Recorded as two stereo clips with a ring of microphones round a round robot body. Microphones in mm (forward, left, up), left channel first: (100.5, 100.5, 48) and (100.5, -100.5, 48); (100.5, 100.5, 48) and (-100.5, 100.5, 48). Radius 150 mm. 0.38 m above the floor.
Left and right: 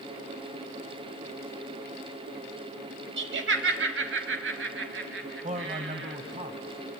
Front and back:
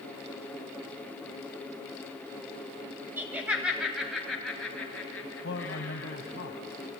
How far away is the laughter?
About 2 m.